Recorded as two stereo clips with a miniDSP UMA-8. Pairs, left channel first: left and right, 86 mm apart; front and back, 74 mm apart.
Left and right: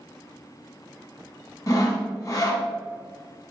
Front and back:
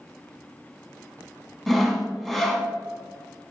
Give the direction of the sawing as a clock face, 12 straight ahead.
9 o'clock.